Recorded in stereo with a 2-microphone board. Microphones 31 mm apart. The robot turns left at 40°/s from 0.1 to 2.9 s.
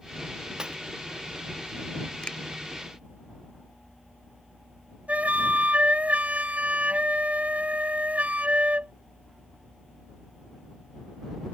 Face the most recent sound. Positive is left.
turn(degrees=-55)  # may be behind; listen again after turning